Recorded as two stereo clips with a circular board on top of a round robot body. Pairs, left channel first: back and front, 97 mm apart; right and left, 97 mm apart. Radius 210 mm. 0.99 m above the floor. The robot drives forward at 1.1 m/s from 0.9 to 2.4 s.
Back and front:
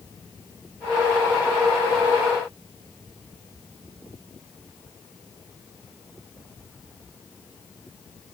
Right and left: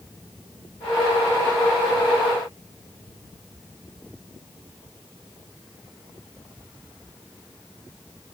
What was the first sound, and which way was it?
Only background noise.